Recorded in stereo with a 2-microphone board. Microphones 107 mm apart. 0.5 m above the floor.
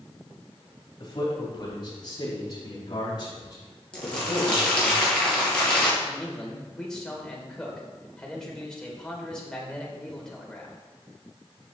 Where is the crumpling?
10° left (ahead or behind), 3.5 m.